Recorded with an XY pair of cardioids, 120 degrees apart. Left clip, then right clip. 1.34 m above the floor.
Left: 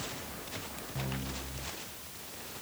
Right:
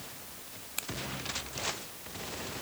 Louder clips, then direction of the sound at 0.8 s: Right 5 dB; 70° right.